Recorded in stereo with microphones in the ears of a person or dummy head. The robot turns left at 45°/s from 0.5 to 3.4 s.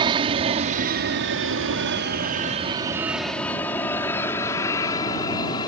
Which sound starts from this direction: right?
An aircraft, at 0.0 s.